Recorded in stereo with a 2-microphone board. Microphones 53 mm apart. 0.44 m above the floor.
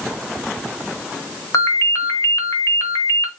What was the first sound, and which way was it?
A ringtone, 70° left (ahead or behind).